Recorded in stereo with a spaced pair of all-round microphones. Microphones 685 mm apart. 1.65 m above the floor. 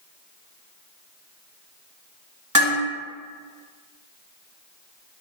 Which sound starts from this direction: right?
Dishes clattering, at 2.5 s.